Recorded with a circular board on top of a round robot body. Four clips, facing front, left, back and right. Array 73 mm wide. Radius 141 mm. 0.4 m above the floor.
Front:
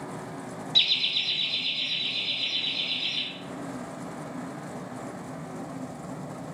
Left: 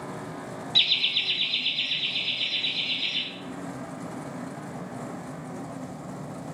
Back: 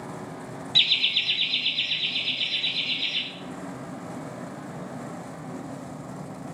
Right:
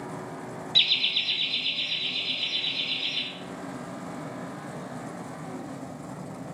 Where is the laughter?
175° right, 1.2 m; by 3.2 s 145° left, 2 m.